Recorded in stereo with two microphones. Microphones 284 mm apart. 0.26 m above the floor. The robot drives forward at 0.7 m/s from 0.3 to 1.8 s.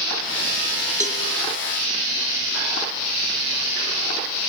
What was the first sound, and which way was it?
A cowbell, 25° right (ahead or behind).